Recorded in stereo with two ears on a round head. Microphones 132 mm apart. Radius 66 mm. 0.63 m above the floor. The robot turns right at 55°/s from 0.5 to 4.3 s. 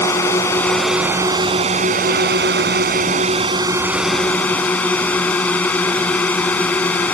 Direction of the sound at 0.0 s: 160° left.